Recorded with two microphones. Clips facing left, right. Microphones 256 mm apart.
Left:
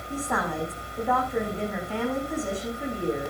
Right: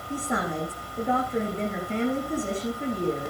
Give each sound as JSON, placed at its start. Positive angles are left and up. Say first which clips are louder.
{"t": 0.1, "sound": "a woman speaking", "louder": "right 1 dB", "side_deg": -15, "distance_m": 8.5}